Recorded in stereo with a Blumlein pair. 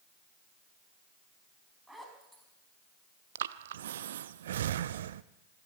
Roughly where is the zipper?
Ahead.